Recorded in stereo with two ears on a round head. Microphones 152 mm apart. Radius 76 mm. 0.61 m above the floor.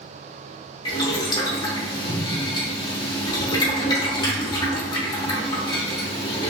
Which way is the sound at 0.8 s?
25° left (ahead or behind).